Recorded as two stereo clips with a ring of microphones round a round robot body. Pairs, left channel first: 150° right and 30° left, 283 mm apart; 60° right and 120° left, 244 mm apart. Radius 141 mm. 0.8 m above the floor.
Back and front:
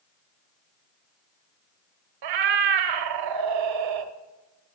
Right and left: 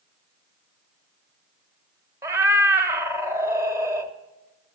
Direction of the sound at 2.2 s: 40° left.